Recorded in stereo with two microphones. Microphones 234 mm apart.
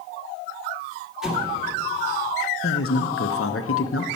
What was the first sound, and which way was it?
An explosion, centre (ahead or behind).